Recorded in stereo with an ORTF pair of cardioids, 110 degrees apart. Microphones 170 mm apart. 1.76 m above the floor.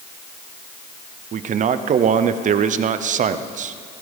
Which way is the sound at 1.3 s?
45° right.